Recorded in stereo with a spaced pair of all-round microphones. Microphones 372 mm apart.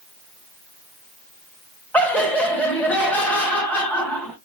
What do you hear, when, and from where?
1.9 s laughter: 5° left (ahead or behind), 1.7 m